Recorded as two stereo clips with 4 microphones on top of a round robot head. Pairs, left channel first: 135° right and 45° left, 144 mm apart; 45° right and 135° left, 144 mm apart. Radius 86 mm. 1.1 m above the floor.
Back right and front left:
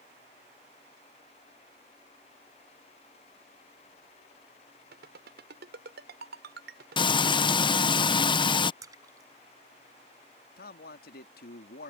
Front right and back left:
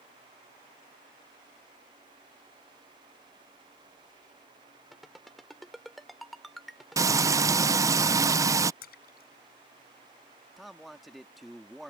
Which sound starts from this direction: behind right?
A man speaking, at 10.6 s.